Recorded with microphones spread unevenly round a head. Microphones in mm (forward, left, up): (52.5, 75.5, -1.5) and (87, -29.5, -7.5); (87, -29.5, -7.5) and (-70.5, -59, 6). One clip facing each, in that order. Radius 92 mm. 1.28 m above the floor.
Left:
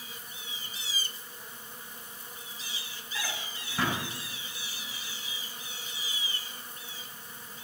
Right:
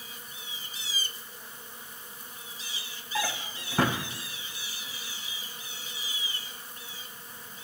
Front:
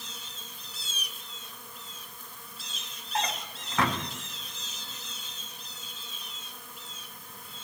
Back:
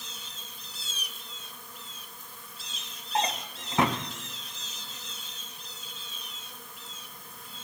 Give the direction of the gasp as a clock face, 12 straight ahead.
No gasp in this recording.